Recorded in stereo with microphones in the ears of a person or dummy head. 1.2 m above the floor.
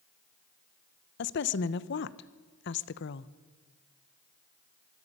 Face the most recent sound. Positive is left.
turn(degrees=55)  # may be behind; listen again after turning